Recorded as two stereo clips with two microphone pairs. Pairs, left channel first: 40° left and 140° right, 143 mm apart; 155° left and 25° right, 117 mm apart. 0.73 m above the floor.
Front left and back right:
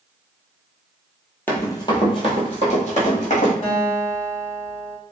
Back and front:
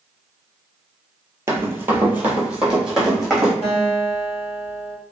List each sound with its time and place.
1.5 s running footsteps: 20° right, 0.7 m; by 3.5 s 60° left, 1.6 m
3.6 s a guitar: 5° left, 1.3 m